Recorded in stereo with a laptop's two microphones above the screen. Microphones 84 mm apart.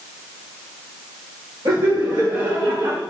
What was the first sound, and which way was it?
Laughter, 65° right (ahead or behind).